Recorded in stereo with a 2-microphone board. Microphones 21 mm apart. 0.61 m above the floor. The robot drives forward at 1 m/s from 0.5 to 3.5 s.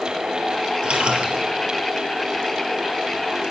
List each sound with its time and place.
0.8 s a splash: 60° right (ahead or behind), 4.5 m; by 1.4 s 65° right (ahead or behind), 4 m